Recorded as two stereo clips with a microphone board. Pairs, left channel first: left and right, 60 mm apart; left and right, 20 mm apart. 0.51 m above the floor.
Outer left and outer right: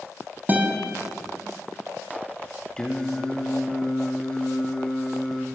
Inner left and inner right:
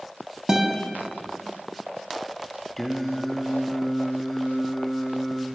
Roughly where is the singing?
Centre.